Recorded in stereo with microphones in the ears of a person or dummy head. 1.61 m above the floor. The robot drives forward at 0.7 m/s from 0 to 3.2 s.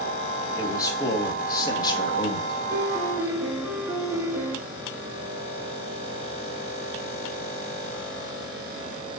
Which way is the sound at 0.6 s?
15° left (ahead or behind).